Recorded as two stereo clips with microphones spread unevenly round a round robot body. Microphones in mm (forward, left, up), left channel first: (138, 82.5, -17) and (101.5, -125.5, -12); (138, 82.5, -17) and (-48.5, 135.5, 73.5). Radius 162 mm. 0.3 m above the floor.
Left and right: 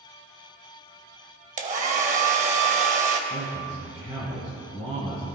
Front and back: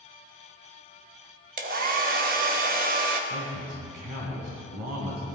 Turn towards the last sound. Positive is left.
turn(degrees=-175)